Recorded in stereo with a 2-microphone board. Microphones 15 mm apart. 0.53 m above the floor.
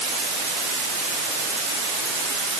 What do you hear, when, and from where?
Only background noise.